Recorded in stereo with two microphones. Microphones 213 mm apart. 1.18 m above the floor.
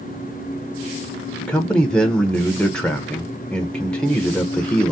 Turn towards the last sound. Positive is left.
turn(degrees=5)  # may be behind; listen again after turning